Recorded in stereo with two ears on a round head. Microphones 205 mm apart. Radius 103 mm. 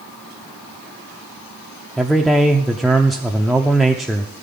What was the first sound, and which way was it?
A man speaking, centre (ahead or behind).